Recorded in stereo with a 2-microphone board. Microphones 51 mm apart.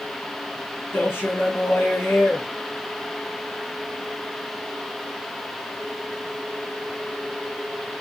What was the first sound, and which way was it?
A man speaking, 65° left (ahead or behind).